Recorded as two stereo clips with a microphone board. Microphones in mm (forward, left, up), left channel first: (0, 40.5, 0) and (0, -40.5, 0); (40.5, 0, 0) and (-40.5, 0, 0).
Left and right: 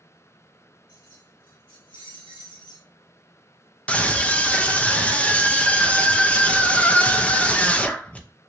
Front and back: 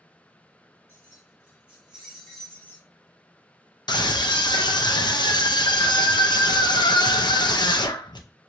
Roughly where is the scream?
Ahead.